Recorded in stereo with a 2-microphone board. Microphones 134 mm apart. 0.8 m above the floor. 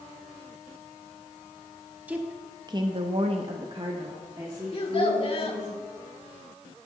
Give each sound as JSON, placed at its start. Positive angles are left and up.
{"t": 2.1, "sound": "a woman speaking", "side_deg": -10, "distance_m": 1.1}
{"t": 4.7, "sound": "a child speaking", "side_deg": 45, "distance_m": 1.5}